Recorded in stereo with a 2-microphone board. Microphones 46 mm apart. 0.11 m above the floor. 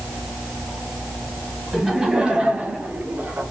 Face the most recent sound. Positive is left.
turn(degrees=-45)  # may be behind; listen again after turning